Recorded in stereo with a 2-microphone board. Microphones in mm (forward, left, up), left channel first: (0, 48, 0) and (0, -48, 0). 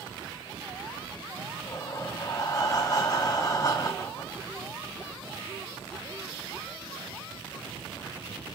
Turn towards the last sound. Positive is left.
turn(degrees=35)  # may be behind; listen again after turning